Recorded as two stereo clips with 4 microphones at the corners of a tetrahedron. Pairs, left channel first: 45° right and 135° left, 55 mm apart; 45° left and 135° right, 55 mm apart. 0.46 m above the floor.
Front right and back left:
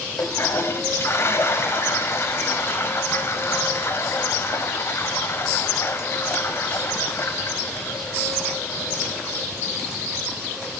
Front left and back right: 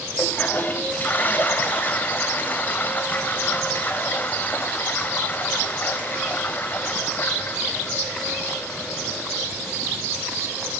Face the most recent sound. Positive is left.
turn(degrees=-10)